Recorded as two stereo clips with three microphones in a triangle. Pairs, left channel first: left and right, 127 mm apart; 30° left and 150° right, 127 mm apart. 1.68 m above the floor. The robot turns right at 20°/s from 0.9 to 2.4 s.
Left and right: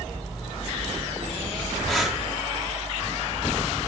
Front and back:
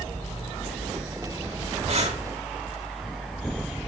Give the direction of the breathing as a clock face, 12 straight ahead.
6 o'clock.